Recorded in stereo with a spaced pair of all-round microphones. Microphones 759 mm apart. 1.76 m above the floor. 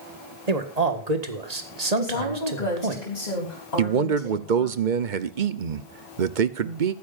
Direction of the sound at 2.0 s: 60° left (ahead or behind).